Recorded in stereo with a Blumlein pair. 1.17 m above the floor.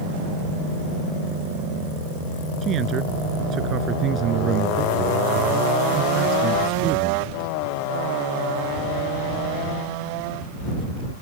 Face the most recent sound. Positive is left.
turn(degrees=-30)